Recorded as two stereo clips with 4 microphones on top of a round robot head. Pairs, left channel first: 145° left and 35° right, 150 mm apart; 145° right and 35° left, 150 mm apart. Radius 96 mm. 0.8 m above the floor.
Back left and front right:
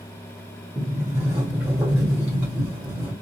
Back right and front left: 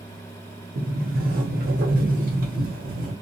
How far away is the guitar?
No guitar in this recording.